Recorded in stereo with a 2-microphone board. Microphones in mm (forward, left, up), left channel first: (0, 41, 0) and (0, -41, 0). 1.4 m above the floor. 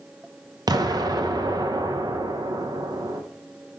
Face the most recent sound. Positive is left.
turn(degrees=-50)  # may be behind; listen again after turning